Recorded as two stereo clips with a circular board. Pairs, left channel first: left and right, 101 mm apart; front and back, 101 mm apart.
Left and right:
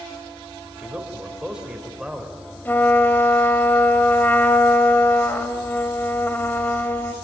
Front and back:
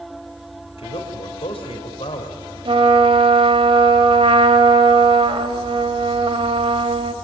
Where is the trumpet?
160° left, 1.7 m.